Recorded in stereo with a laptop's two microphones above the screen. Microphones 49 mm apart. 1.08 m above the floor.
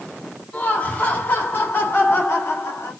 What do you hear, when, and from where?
0.5 s laughter: 40° left (ahead or behind), 3.5 m; by 2.9 s 65° left (ahead or behind), 3.5 m